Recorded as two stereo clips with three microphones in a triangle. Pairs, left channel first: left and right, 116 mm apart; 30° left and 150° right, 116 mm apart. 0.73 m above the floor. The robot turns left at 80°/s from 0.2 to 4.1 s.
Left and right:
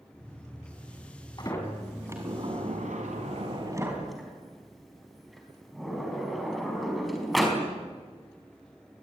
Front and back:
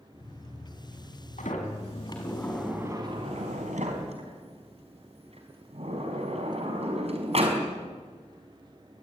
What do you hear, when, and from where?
1.4 s a sliding door: 40° left, 5 m; by 7.6 s straight behind, 5 m